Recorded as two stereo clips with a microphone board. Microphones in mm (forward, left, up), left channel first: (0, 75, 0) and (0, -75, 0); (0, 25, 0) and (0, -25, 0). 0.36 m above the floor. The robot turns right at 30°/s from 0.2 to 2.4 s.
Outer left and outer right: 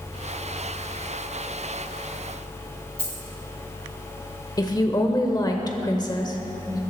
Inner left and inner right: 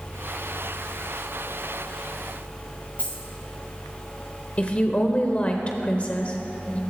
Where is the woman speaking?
30° left (ahead or behind), 1.1 m.